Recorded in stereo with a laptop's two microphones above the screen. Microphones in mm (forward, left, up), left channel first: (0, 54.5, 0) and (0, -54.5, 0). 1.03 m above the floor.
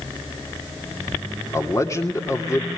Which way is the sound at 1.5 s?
30° left (ahead or behind).